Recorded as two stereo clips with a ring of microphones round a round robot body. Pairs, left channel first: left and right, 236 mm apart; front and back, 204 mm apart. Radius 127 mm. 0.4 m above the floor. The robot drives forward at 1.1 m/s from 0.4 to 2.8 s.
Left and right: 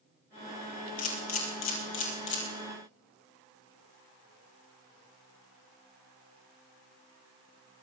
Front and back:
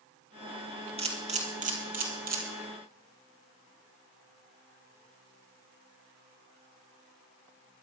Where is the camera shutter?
120° left, 3.5 m; by 2.4 s 135° left, 4.5 m.